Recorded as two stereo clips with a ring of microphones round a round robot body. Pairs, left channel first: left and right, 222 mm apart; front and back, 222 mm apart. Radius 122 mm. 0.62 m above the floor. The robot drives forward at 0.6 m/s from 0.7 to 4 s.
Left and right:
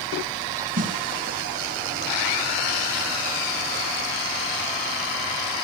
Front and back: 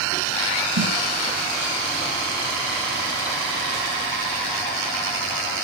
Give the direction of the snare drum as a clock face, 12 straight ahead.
5 o'clock.